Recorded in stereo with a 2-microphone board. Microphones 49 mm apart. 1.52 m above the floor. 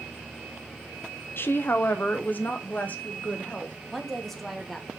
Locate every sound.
1.4 s a woman speaking: 55° left (ahead or behind), 0.7 m; by 3.8 s 30° left (ahead or behind), 1.8 m
3.9 s a woman speaking: 5° left (ahead or behind), 1.3 m